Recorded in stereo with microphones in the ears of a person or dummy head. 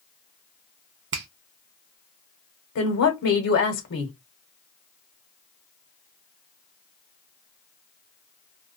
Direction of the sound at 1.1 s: 60° right (ahead or behind).